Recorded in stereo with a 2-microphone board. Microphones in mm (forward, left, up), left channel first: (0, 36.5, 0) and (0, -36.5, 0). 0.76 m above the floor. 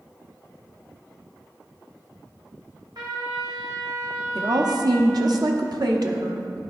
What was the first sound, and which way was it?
A trumpet, 75° right (ahead or behind).